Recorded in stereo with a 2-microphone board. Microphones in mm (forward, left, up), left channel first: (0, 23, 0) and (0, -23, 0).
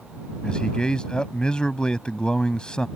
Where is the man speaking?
20° left (ahead or behind).